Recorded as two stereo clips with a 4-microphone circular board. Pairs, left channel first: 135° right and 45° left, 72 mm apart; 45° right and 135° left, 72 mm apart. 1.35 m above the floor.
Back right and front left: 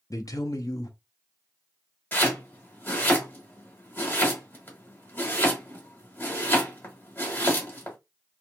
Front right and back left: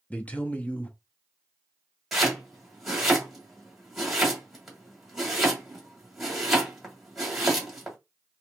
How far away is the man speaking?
About 0.5 m.